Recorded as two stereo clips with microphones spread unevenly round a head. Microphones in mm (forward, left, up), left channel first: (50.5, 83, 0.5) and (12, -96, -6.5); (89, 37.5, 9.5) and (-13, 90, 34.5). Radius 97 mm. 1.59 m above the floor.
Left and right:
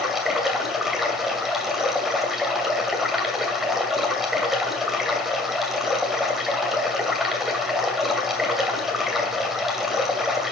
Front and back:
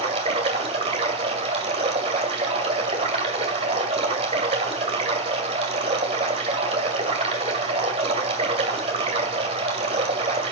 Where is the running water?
170° left, 2 m.